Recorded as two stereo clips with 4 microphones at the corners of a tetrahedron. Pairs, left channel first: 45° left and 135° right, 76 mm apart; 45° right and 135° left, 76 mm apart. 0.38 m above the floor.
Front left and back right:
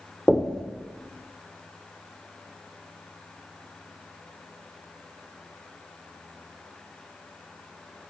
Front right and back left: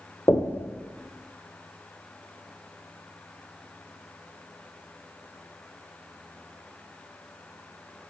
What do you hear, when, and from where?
0.3 s knocking: 30° right, 0.9 m